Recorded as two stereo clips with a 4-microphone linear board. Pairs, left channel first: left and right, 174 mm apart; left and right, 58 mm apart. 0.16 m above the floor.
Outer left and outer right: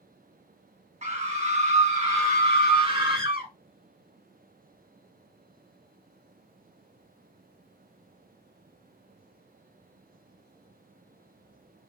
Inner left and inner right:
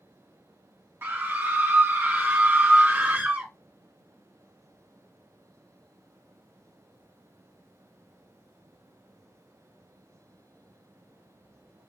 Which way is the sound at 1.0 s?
40° right (ahead or behind).